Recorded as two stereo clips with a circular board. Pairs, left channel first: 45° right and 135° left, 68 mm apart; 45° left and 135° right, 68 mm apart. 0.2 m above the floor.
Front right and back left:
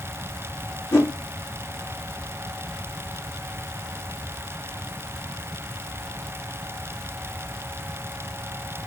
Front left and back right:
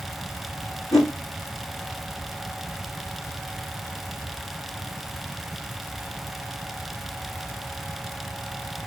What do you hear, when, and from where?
0.9 s a whoosh: 5° left, 4.5 m